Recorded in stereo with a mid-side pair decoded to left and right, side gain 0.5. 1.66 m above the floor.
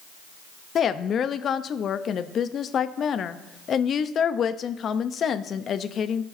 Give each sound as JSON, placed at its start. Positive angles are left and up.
{"t": 0.8, "sound": "a woman speaking", "azimuth_deg": 50, "distance_m": 0.6}